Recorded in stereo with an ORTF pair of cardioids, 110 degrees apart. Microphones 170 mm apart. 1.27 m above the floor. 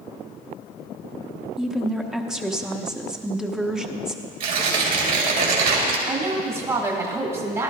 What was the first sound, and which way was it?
A woman speaking, 5° right.